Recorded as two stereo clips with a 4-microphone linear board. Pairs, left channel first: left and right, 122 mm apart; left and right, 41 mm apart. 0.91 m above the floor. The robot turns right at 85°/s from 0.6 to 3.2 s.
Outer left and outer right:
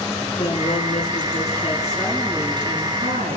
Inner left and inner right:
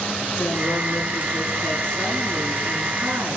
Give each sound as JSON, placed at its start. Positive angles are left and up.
{"t": 0.4, "sound": "a woman speaking", "azimuth_deg": 50, "distance_m": 9.5}